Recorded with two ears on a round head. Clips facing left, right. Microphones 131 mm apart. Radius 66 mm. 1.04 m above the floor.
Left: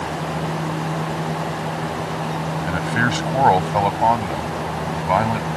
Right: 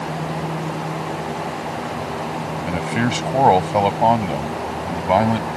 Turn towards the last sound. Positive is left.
turn(degrees=-35)  # may be behind; listen again after turning